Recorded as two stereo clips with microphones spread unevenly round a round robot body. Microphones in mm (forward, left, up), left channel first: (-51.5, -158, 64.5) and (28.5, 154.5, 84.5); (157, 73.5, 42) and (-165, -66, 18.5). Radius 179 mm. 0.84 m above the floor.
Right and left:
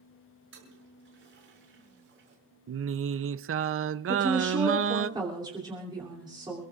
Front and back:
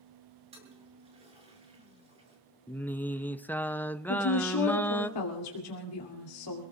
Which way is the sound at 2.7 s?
110° left.